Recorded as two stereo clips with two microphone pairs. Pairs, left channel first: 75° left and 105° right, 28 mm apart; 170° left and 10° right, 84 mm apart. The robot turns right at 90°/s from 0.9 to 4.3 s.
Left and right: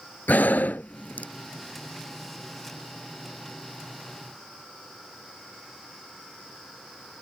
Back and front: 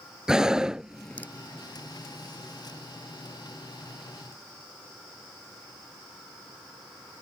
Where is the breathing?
70° left; by 1.3 s 105° left.